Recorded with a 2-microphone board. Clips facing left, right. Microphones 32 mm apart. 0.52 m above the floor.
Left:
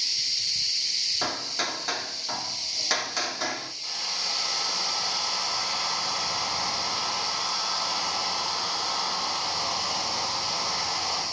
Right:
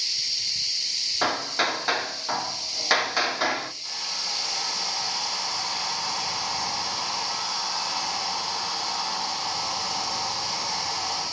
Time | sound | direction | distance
1.2 | hammering | 25° right (ahead or behind) | 0.5 m
3.8 | a hair dryer | 15° left (ahead or behind) | 8 m